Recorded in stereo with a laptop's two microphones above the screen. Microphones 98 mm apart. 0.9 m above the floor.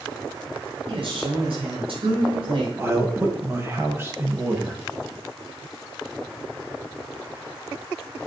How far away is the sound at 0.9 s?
About 4.5 m.